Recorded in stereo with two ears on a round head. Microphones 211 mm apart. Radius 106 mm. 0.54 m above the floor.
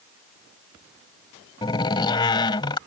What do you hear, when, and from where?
1.6 s a door slam: 20° left (ahead or behind)